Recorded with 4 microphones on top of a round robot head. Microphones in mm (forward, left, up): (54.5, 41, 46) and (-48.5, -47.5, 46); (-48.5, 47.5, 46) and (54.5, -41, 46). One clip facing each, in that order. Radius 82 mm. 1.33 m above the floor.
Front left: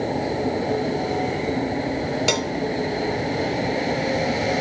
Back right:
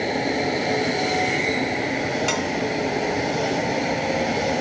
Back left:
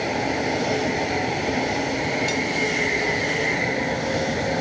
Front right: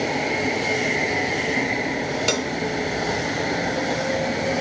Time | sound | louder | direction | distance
2.3 | a cowbell | front left 1 dB, front right 1 dB | 15° right | ?